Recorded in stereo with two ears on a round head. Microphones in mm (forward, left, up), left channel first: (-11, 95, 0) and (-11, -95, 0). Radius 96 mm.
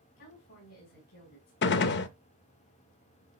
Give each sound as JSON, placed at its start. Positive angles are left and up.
{"t": 0.2, "sound": "a woman speaking", "side_deg": 70, "distance_m": 3.5}
{"t": 1.6, "sound": "a gunshot", "side_deg": 50, "distance_m": 0.5}